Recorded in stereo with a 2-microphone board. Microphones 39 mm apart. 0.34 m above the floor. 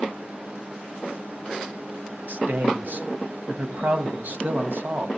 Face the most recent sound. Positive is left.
turn(degrees=-55)  # may be behind; listen again after turning